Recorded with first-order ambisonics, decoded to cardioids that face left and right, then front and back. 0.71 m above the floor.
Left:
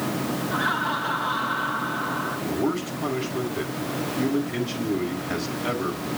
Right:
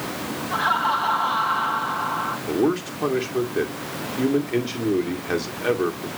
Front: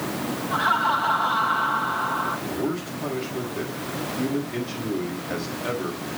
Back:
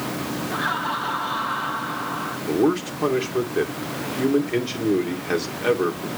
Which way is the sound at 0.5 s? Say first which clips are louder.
Right 5 dB, front 5 dB; 70° right.